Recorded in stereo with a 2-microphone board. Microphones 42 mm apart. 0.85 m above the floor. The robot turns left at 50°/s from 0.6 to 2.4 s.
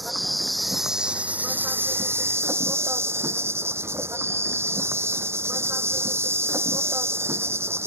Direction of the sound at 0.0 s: Straight ahead.